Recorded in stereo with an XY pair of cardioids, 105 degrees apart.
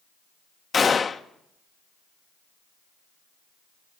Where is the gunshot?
30° left, 1.0 m.